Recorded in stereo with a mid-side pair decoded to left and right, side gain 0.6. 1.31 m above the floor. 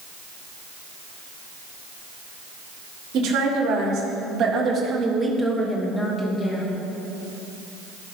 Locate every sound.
3.1 s a woman speaking: 65° right, 4 m; by 6.7 s 35° left, 2 m